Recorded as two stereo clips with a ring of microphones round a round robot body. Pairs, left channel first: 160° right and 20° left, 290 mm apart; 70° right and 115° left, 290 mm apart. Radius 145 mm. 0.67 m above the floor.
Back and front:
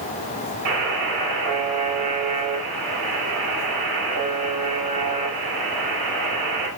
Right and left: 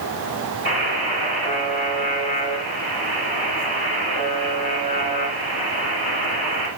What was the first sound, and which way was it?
A buzzer, straight ahead.